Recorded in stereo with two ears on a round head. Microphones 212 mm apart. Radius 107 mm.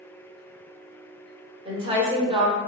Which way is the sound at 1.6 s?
25° right (ahead or behind).